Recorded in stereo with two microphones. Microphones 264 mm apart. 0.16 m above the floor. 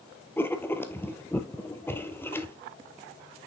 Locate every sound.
0.4 s writing: 10° left (ahead or behind), 0.7 m